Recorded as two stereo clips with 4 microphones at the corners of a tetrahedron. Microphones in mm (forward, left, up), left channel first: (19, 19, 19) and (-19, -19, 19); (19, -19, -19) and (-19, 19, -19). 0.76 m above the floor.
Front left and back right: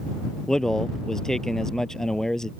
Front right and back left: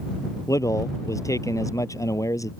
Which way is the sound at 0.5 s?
40° right.